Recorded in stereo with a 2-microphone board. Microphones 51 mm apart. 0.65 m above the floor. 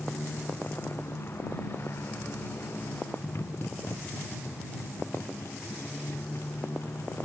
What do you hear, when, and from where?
0.0 s a motorcycle: 45° left (ahead or behind); by 7.2 s 55° left (ahead or behind)